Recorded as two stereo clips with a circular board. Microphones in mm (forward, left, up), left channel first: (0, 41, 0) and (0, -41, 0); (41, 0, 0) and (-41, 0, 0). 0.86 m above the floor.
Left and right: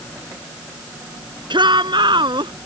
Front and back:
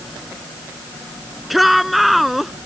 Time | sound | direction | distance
1.5 | a shout | 90° right | ?